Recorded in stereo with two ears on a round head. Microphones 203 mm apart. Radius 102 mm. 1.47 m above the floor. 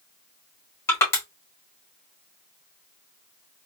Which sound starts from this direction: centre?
Crushing, at 0.9 s.